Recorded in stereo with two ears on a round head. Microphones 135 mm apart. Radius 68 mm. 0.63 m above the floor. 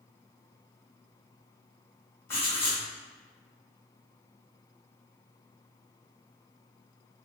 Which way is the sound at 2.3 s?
20° left (ahead or behind).